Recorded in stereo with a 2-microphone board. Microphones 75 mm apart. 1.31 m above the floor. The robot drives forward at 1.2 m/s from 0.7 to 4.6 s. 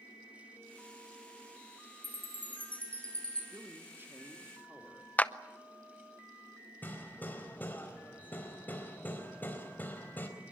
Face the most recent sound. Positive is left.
turn(degrees=25)  # may be behind; listen again after turning